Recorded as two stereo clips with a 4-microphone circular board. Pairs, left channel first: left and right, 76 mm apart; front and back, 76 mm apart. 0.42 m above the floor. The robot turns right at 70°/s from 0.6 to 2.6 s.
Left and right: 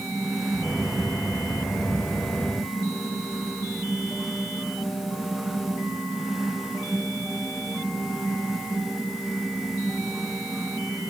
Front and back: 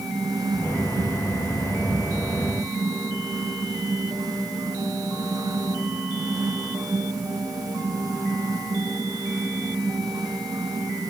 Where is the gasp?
No gasp in this recording.